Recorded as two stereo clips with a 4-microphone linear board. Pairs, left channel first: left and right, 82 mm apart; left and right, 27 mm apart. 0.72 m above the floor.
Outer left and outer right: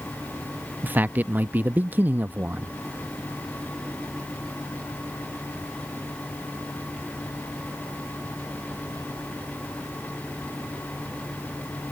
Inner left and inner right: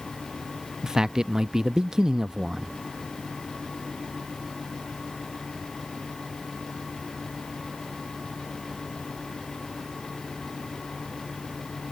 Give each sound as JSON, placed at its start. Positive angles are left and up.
{"t": 0.8, "sound": "a man speaking", "side_deg": -25}